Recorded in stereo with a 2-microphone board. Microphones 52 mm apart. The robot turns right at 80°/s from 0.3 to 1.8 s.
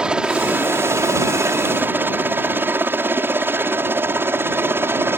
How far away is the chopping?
No chopping in this recording.